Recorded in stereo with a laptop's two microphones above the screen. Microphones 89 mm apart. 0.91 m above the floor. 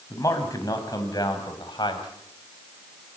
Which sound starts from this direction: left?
A man speaking, at 0.1 s.